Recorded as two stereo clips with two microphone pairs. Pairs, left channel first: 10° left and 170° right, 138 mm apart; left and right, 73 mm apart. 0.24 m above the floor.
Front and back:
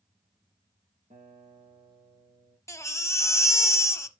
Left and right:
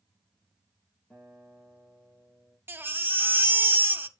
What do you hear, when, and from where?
1.1 s a guitar: 160° left, 3.5 m
2.7 s a baby crying: 50° right, 0.6 m